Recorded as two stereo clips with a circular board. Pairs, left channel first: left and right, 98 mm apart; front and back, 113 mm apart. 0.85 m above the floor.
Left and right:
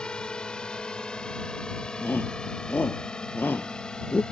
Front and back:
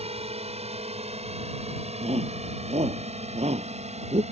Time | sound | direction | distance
0.0 | a drone | 170° left | ?
2.0 | a shout | 160° left | ?